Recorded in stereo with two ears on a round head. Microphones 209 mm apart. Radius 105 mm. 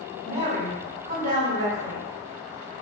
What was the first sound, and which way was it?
A woman speaking, 30° right (ahead or behind).